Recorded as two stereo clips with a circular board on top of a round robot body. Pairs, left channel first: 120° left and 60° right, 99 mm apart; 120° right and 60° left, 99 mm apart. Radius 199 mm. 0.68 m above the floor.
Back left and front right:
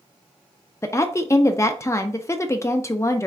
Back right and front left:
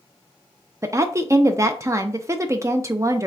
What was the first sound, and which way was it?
A woman speaking, 85° left.